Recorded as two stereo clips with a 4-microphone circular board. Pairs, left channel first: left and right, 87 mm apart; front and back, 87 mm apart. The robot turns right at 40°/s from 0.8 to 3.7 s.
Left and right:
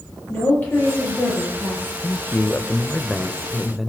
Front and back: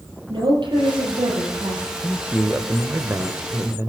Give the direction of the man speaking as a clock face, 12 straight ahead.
8 o'clock.